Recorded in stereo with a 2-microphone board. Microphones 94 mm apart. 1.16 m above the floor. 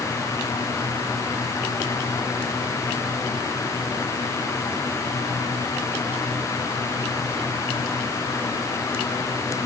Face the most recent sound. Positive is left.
No sound to turn to.